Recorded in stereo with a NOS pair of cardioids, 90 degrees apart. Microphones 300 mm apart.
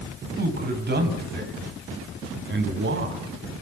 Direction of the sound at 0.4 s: 30° right.